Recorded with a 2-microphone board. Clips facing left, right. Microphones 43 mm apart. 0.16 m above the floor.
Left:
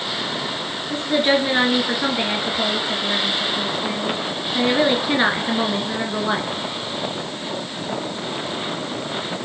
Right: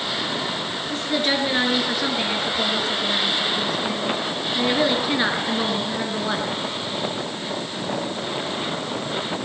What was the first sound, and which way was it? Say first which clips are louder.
A woman speaking: left 5 dB; 15° left (ahead or behind).